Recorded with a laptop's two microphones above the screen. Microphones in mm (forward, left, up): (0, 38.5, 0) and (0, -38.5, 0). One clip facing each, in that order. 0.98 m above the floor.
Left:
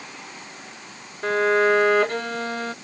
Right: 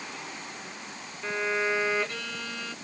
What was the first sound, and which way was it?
A violin, 45° left (ahead or behind).